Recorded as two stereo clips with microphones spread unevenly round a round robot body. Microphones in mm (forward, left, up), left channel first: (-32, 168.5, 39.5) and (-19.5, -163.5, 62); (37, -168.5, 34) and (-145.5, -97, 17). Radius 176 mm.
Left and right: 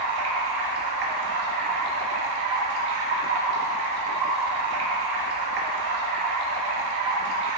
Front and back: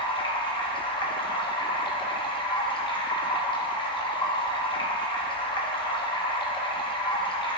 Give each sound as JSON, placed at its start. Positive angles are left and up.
{"t": 0.0, "sound": "running water", "azimuth_deg": -90, "distance_m": 1.5}